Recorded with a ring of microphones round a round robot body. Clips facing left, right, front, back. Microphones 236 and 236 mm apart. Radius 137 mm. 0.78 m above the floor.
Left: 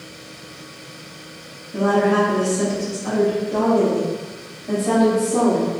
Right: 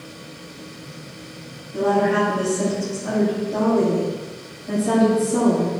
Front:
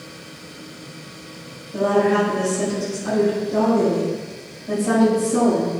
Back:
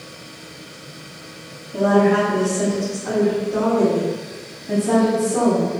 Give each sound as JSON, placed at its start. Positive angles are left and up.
{"t": 1.7, "sound": "a woman speaking", "azimuth_deg": 85, "distance_m": 1.8}